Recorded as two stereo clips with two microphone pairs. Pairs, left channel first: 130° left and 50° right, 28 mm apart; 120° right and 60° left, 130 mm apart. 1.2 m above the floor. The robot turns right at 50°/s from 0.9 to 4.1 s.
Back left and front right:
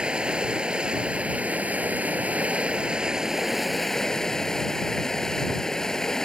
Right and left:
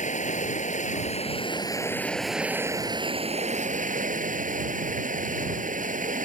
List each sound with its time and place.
0.0 s running water: 100° right; by 6.3 s 60° left